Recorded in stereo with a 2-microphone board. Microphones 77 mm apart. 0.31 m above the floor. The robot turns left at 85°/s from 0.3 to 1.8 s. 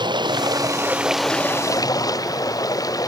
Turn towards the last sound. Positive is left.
turn(degrees=130)